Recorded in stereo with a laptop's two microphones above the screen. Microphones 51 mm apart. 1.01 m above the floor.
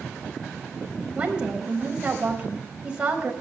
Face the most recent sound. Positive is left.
turn(degrees=-20)  # may be behind; listen again after turning